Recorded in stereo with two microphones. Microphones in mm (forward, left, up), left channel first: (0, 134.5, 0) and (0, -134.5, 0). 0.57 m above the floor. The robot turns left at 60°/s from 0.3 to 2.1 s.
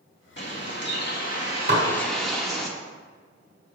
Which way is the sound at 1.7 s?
40° right (ahead or behind).